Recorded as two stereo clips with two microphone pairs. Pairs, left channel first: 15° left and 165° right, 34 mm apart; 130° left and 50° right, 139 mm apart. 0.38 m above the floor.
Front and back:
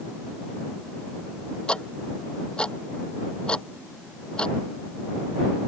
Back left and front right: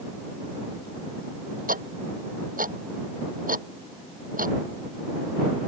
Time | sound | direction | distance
1.7 | ticking | 50° right | ?